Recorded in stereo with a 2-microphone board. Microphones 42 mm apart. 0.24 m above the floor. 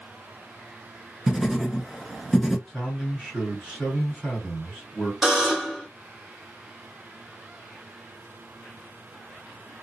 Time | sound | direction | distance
1.3 | writing | 10° right (ahead or behind) | 0.5 m
2.7 | a man speaking | 15° left (ahead or behind) | 1.9 m
5.2 | a buzzer | 10° right (ahead or behind) | 1.1 m